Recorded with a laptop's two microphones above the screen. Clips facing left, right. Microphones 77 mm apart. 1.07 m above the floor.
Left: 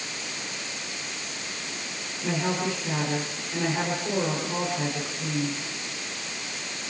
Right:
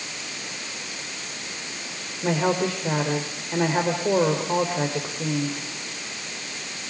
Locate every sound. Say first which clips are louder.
2.2 s a woman speaking: right 5 dB; 65° right (ahead or behind), 3.5 m